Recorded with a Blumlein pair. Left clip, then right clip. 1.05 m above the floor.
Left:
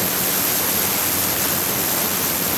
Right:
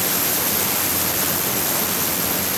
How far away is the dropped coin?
I don't hear a dropped coin.